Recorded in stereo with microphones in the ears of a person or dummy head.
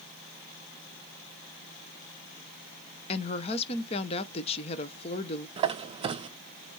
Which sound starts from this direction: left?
A woman speaking, at 3.1 s.